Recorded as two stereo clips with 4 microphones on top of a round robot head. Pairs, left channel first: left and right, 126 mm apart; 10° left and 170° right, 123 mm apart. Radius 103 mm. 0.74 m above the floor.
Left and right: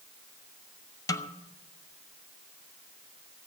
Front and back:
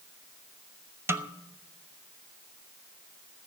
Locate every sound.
1.1 s a snare drum: 135° left, 1.1 m